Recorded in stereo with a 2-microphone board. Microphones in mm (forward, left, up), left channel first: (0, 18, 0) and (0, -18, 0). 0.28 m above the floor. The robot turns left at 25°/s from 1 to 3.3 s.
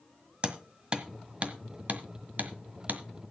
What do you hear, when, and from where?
0.4 s hammering: 30° right (ahead or behind), 1.5 m; by 3.0 s 55° right (ahead or behind), 1.5 m